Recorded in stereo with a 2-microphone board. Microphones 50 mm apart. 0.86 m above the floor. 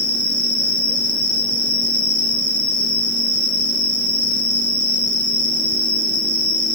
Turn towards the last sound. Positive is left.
turn(degrees=75)  # may be behind; listen again after turning